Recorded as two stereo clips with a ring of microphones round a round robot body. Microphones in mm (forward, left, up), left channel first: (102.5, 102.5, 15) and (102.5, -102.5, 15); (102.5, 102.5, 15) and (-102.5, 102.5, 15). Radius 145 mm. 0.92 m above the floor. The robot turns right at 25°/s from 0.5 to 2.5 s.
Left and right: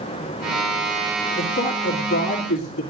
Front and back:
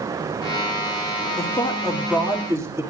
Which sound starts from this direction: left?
A man speaking, at 1.4 s.